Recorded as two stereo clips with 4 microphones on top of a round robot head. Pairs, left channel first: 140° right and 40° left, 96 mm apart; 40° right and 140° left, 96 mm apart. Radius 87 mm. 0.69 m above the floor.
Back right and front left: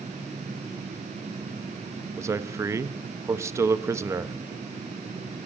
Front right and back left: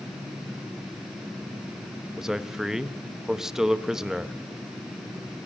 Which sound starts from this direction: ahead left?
A man speaking, at 2.2 s.